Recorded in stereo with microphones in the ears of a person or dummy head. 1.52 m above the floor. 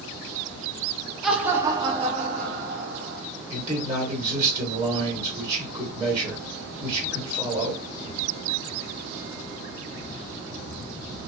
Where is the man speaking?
20° right (ahead or behind), 1.4 m.